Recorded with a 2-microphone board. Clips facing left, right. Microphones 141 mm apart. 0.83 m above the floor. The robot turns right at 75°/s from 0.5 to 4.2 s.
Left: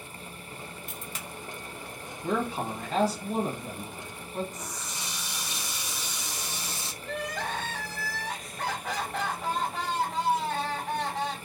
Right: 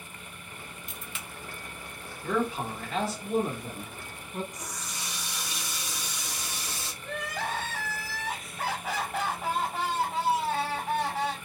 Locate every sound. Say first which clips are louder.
0.9 s a crack: left 2 dB; 50° left (ahead or behind), 0.8 m; by 1.2 s 35° left (ahead or behind), 0.8 m
2.2 s a man speaking: even; 40° left, 1.1 m; by 4.4 s 175° right, 1.1 m
4.5 s a running tap: left 1 dB; 25° left (ahead or behind), 0.9 m
7.0 s crying: left 1 dB; 5° right (ahead or behind), 1.2 m